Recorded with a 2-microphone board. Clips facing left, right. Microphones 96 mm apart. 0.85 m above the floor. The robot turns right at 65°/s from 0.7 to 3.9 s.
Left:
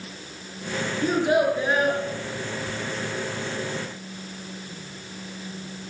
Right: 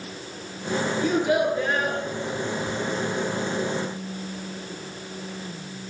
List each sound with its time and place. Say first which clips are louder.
1.0 s a child speaking: left 2 dB; 125° left, 7.5 m; by 2.0 s 170° right, 7.5 m